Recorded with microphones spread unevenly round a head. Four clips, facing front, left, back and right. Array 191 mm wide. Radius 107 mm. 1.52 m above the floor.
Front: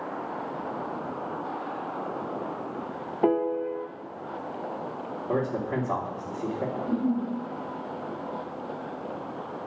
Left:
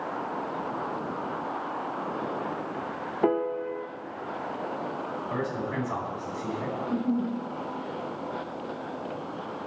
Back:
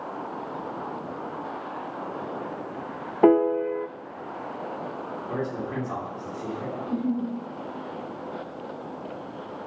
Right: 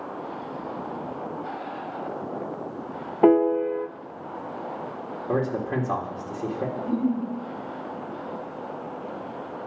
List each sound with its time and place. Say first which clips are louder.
3.2 s a piano: right 8 dB, back 6 dB; 160° right, 0.5 m
5.3 s a man speaking: right 8 dB, front 4 dB; 60° right, 3 m
6.8 s a giggle: right 2 dB, even; 85° right, 8 m